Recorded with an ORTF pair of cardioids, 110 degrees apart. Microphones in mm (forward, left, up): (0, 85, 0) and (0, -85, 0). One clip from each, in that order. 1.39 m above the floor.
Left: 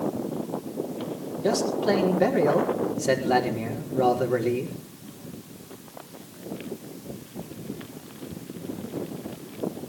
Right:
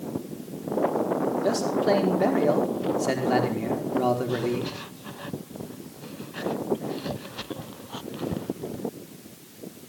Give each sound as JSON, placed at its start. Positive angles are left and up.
{"t": 1.4, "sound": "a man speaking", "azimuth_deg": 5, "distance_m": 4.5}